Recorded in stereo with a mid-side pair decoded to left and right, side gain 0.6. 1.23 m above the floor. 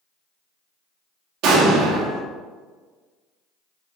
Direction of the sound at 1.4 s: 65° right.